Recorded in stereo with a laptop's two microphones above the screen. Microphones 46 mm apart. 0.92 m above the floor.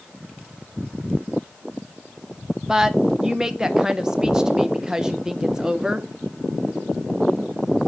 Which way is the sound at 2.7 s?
15° right (ahead or behind).